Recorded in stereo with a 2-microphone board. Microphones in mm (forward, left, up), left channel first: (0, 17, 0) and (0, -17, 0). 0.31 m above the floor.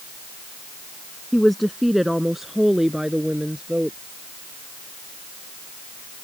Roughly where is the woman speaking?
Centre.